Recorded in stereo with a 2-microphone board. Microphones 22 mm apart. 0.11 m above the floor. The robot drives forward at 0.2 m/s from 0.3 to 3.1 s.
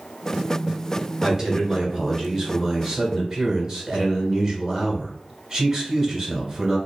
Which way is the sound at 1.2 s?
25° right (ahead or behind).